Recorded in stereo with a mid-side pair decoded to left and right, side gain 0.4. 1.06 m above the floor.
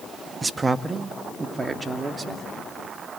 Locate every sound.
0.4 s a man speaking: 25° right, 1.2 m; by 2.5 s 35° right, 2.5 m